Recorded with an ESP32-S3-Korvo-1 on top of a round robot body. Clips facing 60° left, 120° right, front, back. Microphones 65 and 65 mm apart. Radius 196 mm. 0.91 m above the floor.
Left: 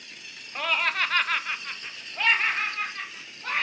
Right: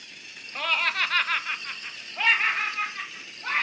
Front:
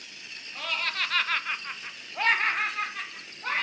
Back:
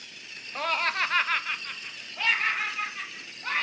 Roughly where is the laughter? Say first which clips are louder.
Even, back 4 dB; behind left.